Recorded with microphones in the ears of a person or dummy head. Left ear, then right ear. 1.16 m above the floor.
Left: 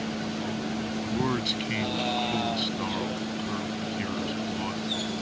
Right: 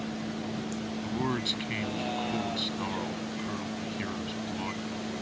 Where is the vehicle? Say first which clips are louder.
Left 4 dB; 5° left (ahead or behind); by 5.2 s 15° left (ahead or behind).